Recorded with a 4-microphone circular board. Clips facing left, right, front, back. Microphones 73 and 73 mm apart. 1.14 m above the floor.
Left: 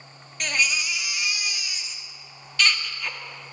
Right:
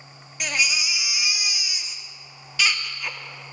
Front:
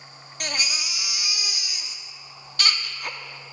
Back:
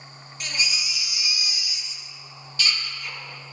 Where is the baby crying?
5° right, 0.9 m.